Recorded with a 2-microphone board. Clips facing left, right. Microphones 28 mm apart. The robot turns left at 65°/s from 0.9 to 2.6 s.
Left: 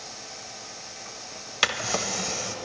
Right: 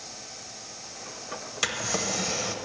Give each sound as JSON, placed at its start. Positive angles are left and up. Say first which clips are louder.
{"t": 1.6, "sound": "a drawer", "louder": "left 4 dB", "azimuth_deg": 40, "distance_m": 0.7}